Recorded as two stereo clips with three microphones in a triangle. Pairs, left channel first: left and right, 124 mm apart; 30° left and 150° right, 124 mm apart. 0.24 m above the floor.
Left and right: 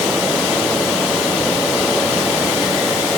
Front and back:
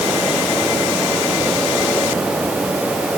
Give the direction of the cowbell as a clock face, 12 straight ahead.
I don't hear a cowbell.